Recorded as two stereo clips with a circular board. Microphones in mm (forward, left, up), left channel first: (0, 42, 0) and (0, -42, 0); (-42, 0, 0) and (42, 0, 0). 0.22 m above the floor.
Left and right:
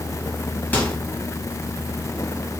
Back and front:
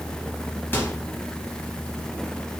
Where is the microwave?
145° left, 0.8 m.